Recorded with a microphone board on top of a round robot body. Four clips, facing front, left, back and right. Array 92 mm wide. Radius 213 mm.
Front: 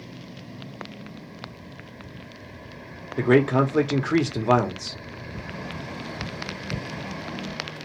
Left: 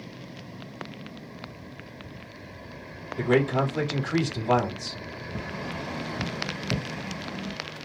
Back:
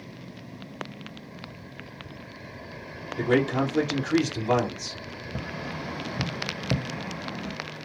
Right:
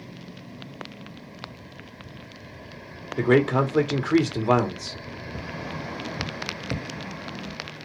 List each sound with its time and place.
3.2 s a man speaking: 40° right, 1.1 m
5.3 s tapping: 170° right, 0.9 m